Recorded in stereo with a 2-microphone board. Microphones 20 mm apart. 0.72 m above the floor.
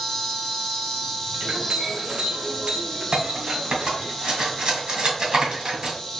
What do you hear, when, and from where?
0.0 s an insect: 15° left (ahead or behind), 2.5 m
1.4 s a clink: 65° right (ahead or behind), 2.0 m
3.1 s cutlery clinking: 45° right (ahead or behind), 2 m